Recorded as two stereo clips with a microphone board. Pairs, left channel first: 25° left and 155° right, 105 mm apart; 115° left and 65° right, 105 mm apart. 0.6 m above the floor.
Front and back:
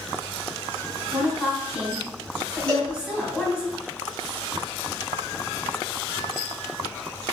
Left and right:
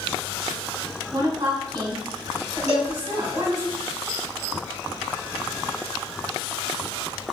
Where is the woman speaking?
75° right, 1.2 m.